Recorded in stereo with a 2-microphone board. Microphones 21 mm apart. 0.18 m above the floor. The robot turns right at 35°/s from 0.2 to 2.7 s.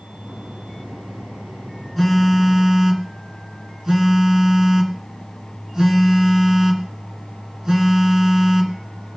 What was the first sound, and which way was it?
A phone buzzing, 5° right (ahead or behind).